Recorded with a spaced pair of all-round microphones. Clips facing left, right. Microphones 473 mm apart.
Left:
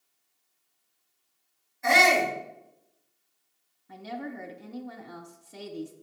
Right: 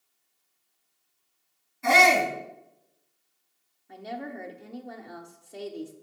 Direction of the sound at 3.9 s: 25° left (ahead or behind).